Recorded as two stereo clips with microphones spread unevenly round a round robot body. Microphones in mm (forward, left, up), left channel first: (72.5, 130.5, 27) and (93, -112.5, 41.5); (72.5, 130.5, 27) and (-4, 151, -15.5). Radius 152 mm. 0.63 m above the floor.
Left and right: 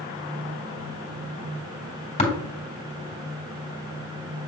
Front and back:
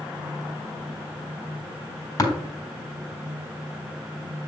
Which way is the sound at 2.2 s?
30° left.